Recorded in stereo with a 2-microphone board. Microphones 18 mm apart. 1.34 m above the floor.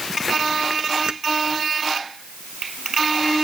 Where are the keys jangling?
50° right (ahead or behind).